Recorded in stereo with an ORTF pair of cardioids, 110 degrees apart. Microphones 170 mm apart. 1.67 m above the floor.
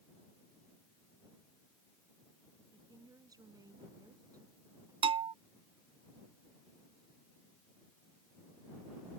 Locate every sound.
2.7 s a woman speaking: 20° right
5.0 s a bell: 30° right